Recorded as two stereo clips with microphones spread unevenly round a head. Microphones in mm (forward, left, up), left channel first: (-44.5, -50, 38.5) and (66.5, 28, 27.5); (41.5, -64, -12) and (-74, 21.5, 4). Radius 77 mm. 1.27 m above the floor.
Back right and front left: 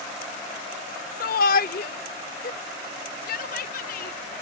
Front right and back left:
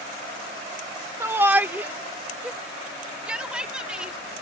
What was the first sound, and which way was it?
A shout, 140° right.